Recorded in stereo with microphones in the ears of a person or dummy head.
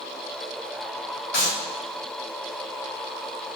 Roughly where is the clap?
Left.